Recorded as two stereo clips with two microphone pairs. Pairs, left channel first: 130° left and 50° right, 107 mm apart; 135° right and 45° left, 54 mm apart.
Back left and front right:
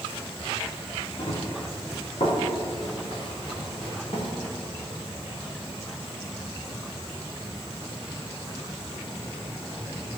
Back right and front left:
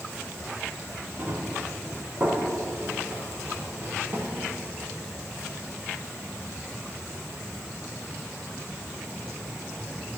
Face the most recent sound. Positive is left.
turn(degrees=100)